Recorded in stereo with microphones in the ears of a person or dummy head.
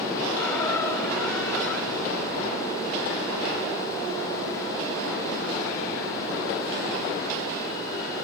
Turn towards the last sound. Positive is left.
turn(degrees=5)  # may be behind; listen again after turning